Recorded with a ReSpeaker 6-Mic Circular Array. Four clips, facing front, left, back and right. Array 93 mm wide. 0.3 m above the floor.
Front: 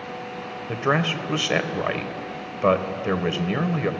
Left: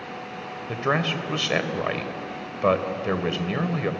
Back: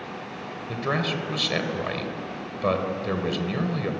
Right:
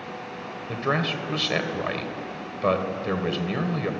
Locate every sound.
0.7 s a man speaking: 25° left, 1.4 m